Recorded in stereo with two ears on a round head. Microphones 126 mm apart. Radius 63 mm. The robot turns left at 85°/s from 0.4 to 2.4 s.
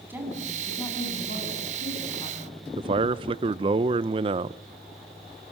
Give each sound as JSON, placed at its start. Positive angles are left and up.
{"t": 0.1, "sound": "a woman speaking", "azimuth_deg": -165, "distance_m": 9.0}
{"t": 2.8, "sound": "a man speaking", "side_deg": -35, "distance_m": 0.6}